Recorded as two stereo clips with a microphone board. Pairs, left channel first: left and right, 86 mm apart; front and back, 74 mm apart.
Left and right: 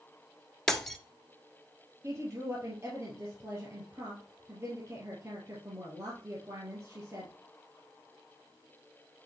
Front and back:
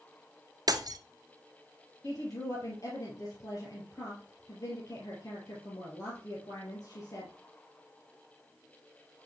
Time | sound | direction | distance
0.7 | breaking glass | 175° left | 1.1 m
2.0 | a woman speaking | 35° right | 3 m